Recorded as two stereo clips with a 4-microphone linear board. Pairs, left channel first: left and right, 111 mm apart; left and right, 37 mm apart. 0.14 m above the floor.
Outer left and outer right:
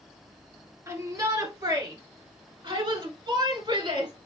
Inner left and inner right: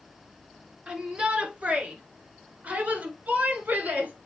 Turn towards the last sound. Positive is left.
turn(degrees=-50)  # may be behind; listen again after turning